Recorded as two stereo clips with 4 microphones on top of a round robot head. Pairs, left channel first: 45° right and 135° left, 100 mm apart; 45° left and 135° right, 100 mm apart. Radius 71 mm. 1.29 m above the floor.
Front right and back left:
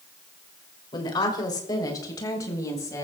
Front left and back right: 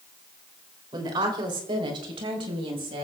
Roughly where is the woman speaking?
Right.